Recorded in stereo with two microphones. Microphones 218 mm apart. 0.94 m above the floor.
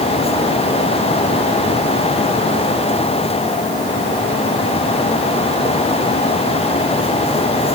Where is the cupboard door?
I don't hear a cupboard door.